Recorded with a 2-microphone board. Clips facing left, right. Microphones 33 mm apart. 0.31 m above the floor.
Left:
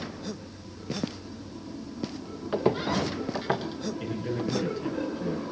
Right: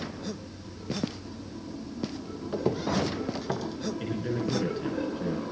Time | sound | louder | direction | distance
2.5 | footsteps | left 2 dB | 35° left (ahead or behind) | 2 m
4.0 | a man speaking | even | 15° right (ahead or behind) | 4 m